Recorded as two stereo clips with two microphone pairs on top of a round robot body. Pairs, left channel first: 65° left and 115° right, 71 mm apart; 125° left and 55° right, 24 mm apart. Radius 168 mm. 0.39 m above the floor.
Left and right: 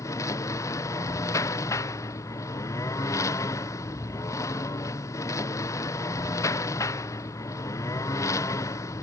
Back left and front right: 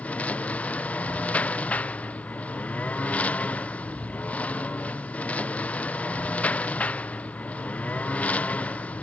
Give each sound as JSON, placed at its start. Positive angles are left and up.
{"t": 0.0, "sound": "a lawn mower", "azimuth_deg": 110}